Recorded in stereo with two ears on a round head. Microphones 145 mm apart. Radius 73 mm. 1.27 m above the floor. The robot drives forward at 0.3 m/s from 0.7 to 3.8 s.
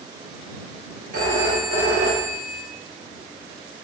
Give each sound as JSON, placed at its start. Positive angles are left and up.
{"t": 1.1, "sound": "a phone ringing", "side_deg": -55, "distance_m": 1.3}